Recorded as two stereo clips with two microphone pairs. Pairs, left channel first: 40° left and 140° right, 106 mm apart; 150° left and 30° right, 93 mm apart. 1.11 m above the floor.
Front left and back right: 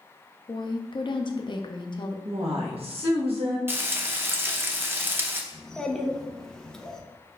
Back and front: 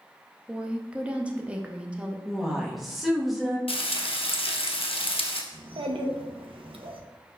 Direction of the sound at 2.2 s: 120° right.